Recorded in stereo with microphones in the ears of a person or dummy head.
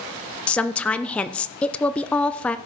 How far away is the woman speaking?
About 0.5 m.